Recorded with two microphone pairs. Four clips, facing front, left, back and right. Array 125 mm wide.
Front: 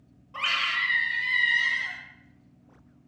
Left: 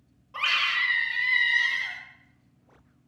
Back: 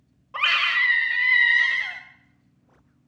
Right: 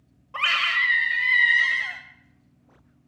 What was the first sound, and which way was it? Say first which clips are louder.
A scream: right 3 dB, back 5 dB; 140° right.